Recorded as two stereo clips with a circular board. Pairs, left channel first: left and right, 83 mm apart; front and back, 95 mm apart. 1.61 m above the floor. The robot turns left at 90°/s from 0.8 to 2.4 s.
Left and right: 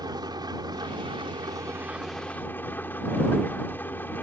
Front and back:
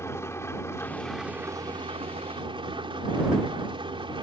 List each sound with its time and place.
0.0 s an engine running: 60° right; by 4.2 s 155° left